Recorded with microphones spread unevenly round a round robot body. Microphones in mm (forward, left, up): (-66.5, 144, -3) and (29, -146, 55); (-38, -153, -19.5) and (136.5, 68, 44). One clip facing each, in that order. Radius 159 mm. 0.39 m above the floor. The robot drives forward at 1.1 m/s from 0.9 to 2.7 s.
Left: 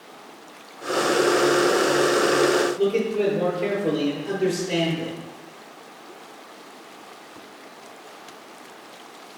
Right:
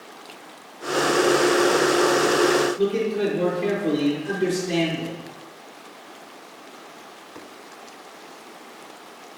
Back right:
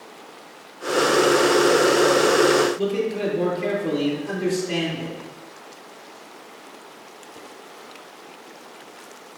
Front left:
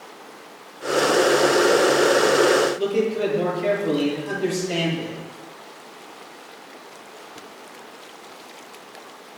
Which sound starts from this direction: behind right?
A man speaking, at 2.8 s.